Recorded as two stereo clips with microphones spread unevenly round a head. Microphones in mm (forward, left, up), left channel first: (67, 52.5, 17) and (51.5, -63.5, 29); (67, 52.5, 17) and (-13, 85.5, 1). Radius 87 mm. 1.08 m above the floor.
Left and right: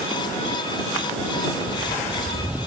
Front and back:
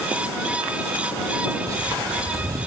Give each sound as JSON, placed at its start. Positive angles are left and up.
{"t": 1.6, "sound": "footsteps", "azimuth_deg": 120}